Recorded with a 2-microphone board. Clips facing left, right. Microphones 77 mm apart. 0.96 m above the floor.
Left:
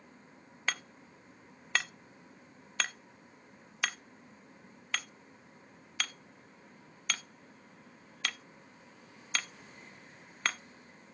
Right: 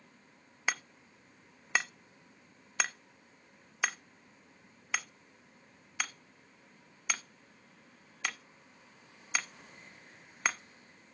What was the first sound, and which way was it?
Hammering, 15° right (ahead or behind).